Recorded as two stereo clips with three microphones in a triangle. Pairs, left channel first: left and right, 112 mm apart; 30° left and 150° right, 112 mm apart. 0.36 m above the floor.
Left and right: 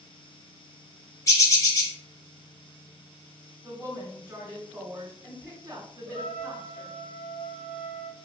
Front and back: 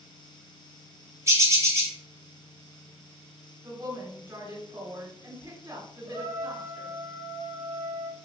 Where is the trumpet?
90° right, 1.0 m.